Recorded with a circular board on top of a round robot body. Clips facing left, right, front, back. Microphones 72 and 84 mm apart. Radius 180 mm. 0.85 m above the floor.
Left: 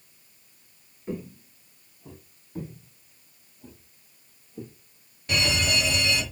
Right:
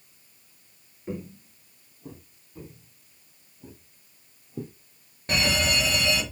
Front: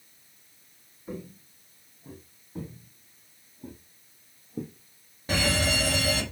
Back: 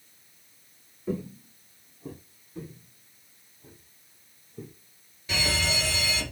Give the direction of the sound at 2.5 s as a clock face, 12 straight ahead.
10 o'clock.